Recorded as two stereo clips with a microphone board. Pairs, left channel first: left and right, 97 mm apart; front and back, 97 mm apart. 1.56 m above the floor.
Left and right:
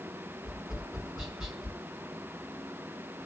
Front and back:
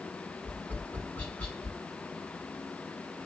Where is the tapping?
10° right, 1.4 m.